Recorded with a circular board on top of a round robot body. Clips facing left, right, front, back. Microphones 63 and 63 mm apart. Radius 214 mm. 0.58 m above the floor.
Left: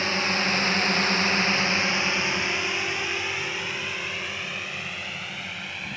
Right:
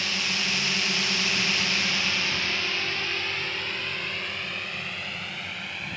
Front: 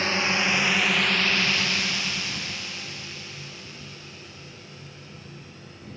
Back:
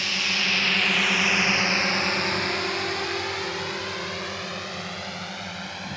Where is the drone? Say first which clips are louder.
Left 5 dB, front 3 dB; 45° left; by 6.0 s straight behind.